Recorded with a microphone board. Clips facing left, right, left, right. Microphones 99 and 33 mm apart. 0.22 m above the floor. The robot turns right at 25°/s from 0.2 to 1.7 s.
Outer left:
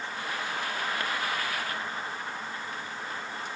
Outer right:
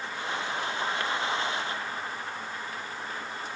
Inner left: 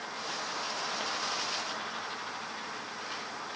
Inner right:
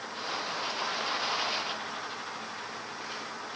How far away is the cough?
I don't hear a cough.